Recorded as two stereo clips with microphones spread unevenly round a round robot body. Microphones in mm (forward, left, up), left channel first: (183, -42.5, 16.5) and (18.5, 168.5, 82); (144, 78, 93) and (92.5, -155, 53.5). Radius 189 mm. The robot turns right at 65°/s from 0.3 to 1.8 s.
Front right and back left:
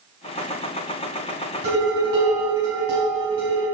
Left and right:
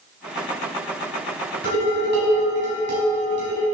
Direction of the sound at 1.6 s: 165° right.